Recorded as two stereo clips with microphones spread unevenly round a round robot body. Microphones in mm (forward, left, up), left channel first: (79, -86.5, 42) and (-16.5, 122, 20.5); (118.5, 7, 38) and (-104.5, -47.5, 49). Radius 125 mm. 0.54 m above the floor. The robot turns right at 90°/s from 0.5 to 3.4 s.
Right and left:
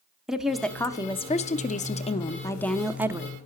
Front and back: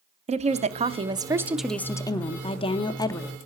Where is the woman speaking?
170° right, 0.6 m; by 3.4 s 85° left, 0.6 m.